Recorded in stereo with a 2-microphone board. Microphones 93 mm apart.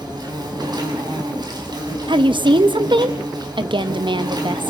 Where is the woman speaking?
60° right (ahead or behind), 1.2 m.